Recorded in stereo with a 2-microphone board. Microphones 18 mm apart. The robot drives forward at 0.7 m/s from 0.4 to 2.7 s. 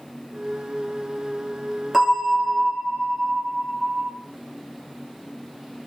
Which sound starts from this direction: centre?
A bell, at 1.9 s.